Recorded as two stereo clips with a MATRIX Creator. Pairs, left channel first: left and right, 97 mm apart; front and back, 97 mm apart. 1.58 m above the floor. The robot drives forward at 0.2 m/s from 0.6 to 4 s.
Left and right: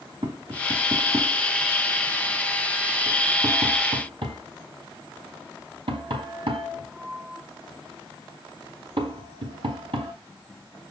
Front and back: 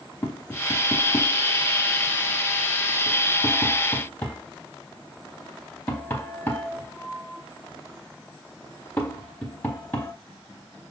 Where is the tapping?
60° right, 4.5 m; by 10.1 s 70° right, 4 m.